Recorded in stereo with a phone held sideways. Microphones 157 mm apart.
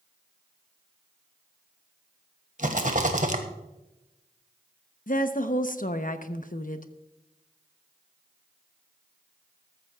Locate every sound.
2.6 s a rattle: 50° right (ahead or behind), 1.4 m
5.1 s a woman speaking: 55° left (ahead or behind), 0.9 m